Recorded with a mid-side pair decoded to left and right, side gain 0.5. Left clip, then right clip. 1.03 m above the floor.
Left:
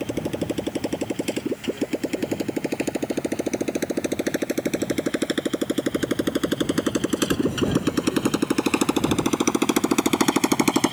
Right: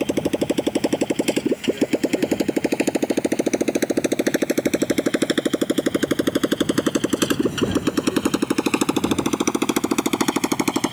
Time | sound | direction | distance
0.0 | a motorcycle | 40° right | ?